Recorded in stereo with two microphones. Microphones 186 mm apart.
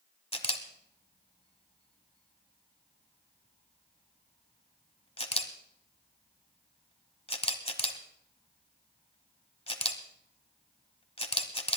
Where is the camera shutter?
30° left (ahead or behind), 1.1 m.